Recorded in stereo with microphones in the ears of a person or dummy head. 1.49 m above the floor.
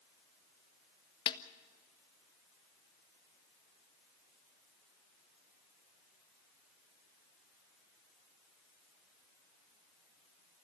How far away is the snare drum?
About 1.2 m.